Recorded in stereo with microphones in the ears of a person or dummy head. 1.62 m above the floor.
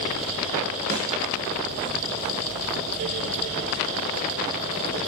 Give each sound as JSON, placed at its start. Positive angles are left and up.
{"t": 0.9, "sound": "a snare drum", "side_deg": -40, "distance_m": 0.9}